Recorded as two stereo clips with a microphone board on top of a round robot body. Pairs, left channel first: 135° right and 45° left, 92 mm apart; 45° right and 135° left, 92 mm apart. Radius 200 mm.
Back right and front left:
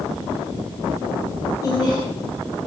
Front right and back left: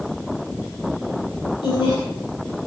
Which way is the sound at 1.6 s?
80° right.